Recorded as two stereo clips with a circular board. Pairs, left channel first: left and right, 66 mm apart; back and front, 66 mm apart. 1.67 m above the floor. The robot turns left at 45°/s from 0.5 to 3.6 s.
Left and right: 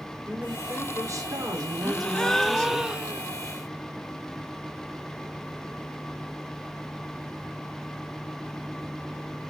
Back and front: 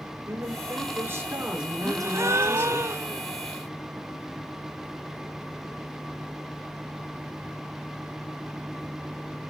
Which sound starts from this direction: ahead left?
A gasp, at 1.8 s.